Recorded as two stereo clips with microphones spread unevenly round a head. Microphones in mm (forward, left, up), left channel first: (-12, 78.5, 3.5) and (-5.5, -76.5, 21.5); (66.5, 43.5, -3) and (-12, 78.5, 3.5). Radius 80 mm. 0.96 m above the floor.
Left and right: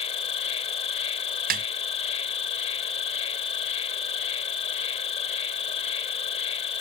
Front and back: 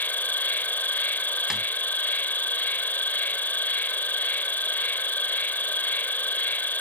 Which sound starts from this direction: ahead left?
An insect, at 0.0 s.